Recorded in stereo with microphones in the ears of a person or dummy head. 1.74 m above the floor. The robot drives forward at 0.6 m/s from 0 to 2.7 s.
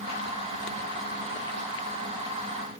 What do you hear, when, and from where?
Only background noise.